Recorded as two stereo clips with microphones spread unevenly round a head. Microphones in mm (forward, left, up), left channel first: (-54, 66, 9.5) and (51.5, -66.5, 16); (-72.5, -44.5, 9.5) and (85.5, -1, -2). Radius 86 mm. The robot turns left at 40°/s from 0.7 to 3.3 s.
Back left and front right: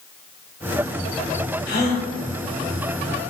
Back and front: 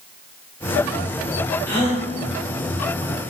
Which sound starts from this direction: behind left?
A gasp, at 1.7 s.